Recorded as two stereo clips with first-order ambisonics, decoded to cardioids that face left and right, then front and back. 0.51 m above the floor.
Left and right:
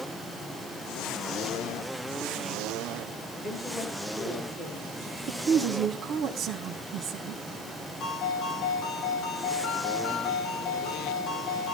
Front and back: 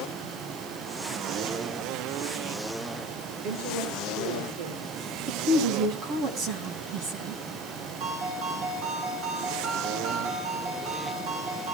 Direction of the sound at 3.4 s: 170° left.